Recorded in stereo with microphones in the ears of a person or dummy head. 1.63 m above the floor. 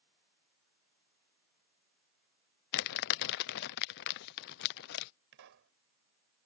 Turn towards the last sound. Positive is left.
turn(degrees=-65)  # may be behind; listen again after turning